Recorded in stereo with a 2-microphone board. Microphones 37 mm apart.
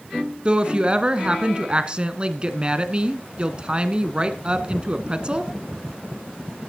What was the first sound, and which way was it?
A woman speaking, 25° right (ahead or behind).